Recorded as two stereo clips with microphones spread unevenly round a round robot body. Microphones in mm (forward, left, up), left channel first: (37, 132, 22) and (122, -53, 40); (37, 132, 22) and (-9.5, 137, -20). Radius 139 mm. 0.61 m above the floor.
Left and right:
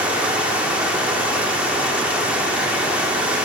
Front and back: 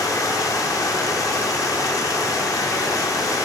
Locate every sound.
0.0 s running water: 20° left, 1.1 m